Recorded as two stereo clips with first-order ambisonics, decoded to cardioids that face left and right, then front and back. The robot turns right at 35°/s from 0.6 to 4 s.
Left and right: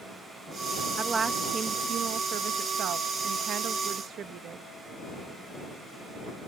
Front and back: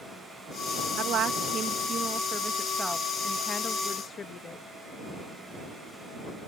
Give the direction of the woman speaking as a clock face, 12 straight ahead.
5 o'clock.